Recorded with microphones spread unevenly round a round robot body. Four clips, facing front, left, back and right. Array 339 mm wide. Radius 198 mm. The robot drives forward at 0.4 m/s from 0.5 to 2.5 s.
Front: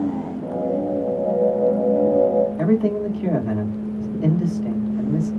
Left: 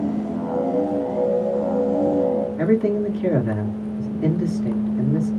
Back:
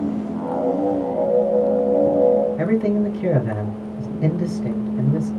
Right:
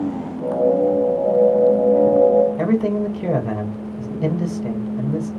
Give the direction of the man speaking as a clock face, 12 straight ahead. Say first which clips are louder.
Even, even; 4 o'clock.